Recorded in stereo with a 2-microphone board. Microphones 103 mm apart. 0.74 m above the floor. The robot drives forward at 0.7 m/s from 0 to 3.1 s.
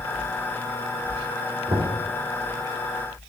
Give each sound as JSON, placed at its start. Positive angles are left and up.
{"t": 1.7, "sound": "knocking", "side_deg": -65, "distance_m": 2.5}